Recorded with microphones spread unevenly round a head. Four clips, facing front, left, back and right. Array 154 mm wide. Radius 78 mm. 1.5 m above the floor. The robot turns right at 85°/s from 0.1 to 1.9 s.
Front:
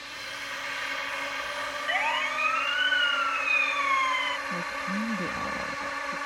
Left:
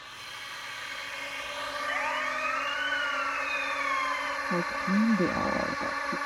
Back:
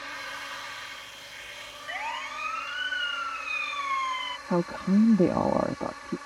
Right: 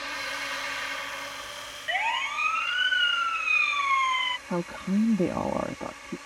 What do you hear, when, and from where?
0.0 s a drone: 100° right; by 6.3 s 45° left
1.9 s a siren: 45° right; by 4.4 s 55° right
4.5 s a woman speaking: 170° right